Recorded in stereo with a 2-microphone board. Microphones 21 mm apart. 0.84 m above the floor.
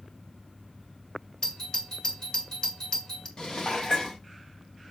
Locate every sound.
1.4 s a doorbell: 35° left (ahead or behind), 1.8 m
3.4 s dishes clattering: 30° left (ahead or behind), 1.1 m